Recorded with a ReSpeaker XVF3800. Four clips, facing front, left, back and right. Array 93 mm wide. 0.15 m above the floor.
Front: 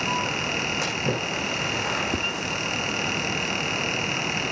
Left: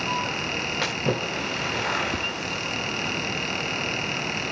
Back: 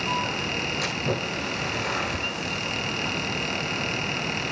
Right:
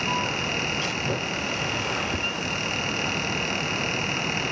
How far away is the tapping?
About 4 m.